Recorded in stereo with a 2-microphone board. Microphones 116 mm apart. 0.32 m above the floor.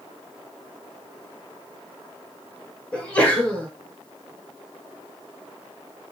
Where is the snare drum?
I don't hear a snare drum.